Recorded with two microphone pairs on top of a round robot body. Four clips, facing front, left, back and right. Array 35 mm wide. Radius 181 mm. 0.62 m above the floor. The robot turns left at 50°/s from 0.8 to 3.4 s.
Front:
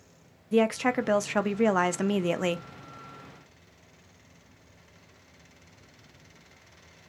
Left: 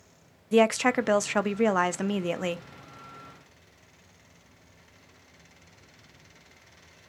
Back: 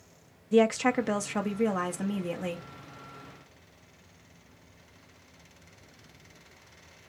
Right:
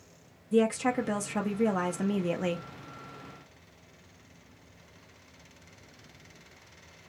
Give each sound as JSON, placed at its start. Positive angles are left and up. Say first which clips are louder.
{"t": 0.5, "sound": "a woman speaking", "louder": "left 4 dB, back 1 dB", "azimuth_deg": 95, "distance_m": 0.7}